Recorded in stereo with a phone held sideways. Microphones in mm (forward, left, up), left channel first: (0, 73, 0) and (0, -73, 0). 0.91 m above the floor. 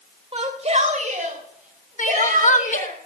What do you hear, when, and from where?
0.3 s a shout: 40° right (ahead or behind), 3 m; by 3.0 s 80° right, 5 m
2.0 s crying: 60° left (ahead or behind), 1.0 m